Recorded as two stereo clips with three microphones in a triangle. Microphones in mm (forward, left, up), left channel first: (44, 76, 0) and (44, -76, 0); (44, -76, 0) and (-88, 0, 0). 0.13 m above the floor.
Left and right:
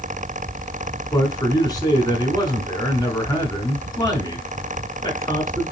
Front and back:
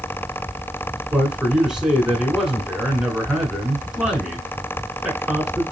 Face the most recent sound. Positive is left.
turn(degrees=70)